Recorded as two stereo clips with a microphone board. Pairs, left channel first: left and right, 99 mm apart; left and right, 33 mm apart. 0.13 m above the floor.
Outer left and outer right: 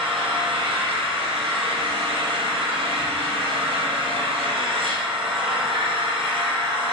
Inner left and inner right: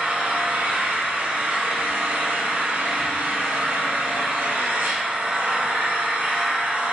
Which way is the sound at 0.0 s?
65° right (ahead or behind).